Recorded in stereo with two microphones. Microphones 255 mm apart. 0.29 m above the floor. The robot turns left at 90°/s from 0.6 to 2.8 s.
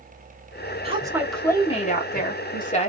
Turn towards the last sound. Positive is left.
turn(degrees=45)